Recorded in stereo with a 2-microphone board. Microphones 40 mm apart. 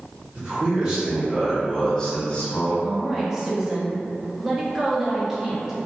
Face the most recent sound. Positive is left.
turn(degrees=-15)  # may be behind; listen again after turning